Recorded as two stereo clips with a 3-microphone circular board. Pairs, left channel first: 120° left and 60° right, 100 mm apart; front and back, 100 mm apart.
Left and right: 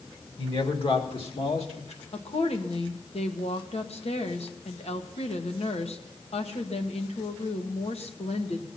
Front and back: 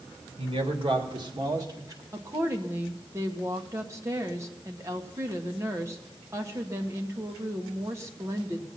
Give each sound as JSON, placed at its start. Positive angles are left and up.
{"t": 0.4, "sound": "a man speaking", "azimuth_deg": 150, "distance_m": 2.0}
{"t": 2.1, "sound": "a woman speaking", "azimuth_deg": 120, "distance_m": 1.5}